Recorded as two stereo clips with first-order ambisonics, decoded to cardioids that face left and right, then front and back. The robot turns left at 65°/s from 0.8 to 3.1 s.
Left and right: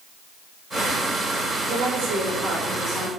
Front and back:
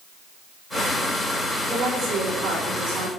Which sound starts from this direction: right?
A woman speaking, at 1.6 s.